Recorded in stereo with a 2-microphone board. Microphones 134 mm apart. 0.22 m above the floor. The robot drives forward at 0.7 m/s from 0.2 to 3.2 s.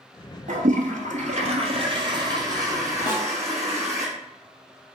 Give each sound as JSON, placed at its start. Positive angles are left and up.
{"t": 0.5, "sound": "a toilet flushing", "side_deg": -75, "distance_m": 0.8}
{"t": 3.1, "sound": "a snare drum", "side_deg": 30, "distance_m": 1.7}